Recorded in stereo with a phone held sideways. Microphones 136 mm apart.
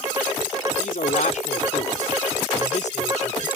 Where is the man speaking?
75° left (ahead or behind); by 3.5 s 60° left (ahead or behind).